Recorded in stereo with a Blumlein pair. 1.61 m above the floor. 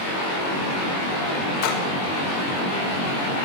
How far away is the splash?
About 6 m.